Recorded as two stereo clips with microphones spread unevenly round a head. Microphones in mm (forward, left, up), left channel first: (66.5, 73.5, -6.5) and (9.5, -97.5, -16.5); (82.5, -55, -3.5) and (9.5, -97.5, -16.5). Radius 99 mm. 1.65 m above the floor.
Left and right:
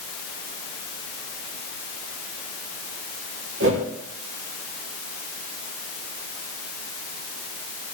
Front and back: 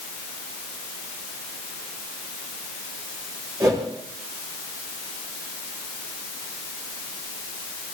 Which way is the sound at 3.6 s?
100° right.